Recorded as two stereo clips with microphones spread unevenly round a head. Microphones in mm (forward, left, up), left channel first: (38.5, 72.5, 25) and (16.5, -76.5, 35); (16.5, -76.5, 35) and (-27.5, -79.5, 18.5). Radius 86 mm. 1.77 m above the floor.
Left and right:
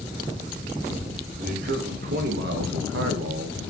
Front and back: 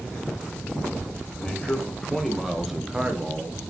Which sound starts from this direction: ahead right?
A man speaking, at 1.4 s.